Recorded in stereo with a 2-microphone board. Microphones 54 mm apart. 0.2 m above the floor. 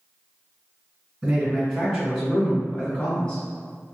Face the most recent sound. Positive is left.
turn(degrees=20)  # may be behind; listen again after turning